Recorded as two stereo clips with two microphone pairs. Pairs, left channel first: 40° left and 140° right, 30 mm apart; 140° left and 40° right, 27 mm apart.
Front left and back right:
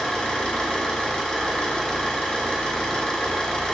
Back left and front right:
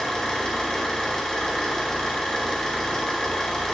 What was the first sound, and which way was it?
An engine running, 90° left.